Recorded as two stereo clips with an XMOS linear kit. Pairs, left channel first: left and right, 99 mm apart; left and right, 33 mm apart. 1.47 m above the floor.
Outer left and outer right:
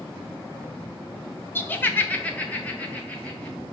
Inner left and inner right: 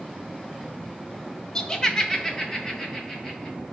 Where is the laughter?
20° left (ahead or behind), 0.7 m; by 3.6 s 15° left (ahead or behind), 3 m.